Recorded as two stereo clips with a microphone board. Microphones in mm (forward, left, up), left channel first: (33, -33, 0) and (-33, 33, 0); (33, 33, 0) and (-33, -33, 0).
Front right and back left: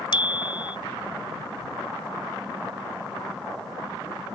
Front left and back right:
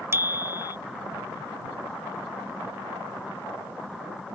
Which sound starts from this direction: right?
A bicycle bell, at 0.1 s.